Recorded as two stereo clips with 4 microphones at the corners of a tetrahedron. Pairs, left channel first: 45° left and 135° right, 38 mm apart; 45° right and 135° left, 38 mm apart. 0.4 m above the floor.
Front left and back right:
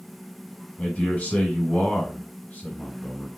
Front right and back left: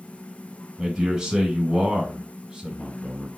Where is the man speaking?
70° left, 1.9 m.